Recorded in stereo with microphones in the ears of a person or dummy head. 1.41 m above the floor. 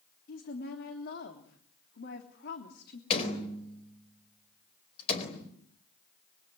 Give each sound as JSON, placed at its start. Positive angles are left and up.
{"t": 0.3, "sound": "a woman speaking", "side_deg": 55, "distance_m": 3.0}
{"t": 3.1, "sound": "a door slam", "side_deg": 35, "distance_m": 4.0}